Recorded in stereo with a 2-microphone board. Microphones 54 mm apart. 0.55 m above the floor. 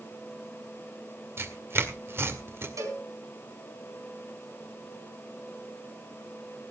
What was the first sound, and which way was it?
Tearing paper, 50° right (ahead or behind).